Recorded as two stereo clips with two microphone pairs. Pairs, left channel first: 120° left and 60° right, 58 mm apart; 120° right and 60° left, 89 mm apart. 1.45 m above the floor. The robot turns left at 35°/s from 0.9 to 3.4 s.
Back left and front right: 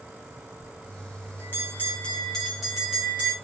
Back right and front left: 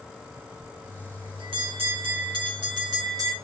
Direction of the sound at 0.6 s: 90° left.